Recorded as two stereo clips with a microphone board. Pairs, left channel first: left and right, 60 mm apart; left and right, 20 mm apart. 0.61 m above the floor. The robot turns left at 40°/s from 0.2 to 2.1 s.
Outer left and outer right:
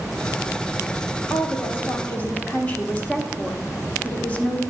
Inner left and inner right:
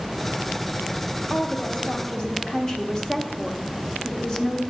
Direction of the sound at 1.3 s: 60° left.